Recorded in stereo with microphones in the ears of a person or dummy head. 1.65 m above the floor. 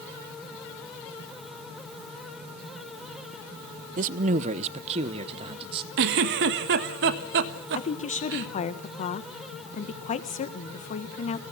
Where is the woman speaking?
35° left (ahead or behind), 1.6 m.